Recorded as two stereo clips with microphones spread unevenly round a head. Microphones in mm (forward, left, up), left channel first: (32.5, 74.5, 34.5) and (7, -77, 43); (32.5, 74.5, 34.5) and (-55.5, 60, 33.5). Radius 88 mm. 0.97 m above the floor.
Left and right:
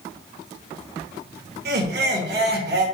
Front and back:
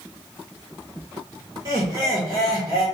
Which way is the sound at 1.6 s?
110° right.